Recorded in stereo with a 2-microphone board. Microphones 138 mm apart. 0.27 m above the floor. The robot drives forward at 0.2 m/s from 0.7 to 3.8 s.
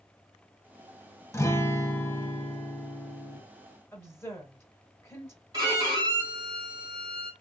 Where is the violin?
30° right (ahead or behind), 2 m.